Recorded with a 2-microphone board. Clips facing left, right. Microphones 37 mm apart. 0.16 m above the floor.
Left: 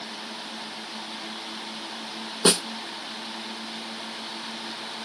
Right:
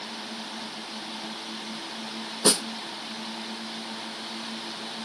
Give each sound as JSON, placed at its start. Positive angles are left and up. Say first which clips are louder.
{"t": 2.5, "sound": "a snare drum", "louder": "left 2 dB", "side_deg": 35, "distance_m": 1.0}